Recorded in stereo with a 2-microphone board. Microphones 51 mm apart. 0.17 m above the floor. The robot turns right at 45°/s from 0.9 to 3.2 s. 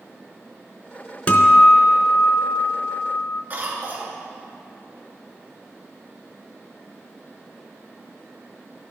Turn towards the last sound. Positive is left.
turn(degrees=-35)  # may be behind; listen again after turning